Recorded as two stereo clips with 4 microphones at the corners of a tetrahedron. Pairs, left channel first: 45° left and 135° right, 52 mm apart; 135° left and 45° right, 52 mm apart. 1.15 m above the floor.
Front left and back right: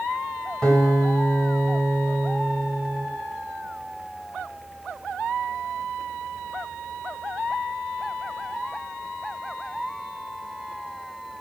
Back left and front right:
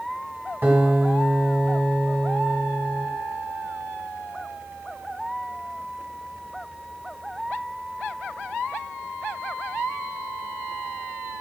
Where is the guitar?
20° right, 1.1 m.